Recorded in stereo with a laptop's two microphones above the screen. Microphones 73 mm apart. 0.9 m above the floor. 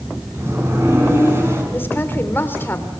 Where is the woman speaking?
30° left (ahead or behind), 3 m.